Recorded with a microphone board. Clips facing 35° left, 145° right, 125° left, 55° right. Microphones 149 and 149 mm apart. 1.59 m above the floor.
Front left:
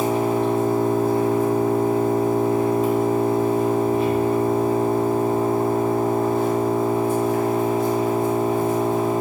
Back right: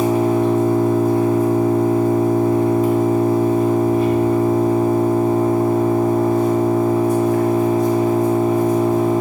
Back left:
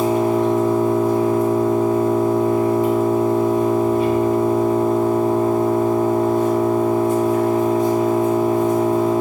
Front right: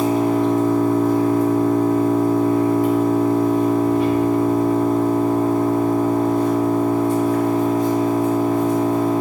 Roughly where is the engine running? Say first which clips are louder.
Back right 4 dB, even; left.